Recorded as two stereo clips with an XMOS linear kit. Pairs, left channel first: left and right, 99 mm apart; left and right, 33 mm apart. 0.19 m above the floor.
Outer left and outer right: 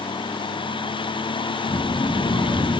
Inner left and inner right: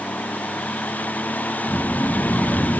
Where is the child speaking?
55° left (ahead or behind), 2.5 m; by 2.8 s 60° left (ahead or behind), 1.8 m.